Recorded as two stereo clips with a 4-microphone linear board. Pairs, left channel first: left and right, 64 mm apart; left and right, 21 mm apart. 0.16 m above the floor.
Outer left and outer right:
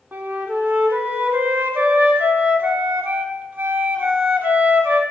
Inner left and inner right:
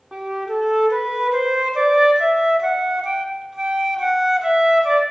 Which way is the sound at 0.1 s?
30° right (ahead or behind).